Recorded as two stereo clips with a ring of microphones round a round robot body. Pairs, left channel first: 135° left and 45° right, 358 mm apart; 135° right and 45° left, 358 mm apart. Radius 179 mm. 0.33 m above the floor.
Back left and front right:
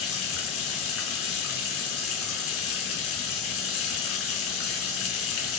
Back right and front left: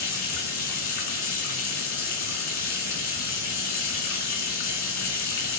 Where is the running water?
175° right, 4.5 m.